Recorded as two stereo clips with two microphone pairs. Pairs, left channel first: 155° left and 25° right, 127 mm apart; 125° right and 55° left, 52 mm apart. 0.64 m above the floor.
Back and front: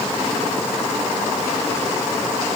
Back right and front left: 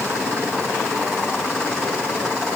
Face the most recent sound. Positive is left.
No sound to turn to.